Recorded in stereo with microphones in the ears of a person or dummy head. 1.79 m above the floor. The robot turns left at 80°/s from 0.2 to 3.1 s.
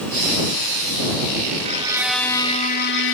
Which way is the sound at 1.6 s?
145° right.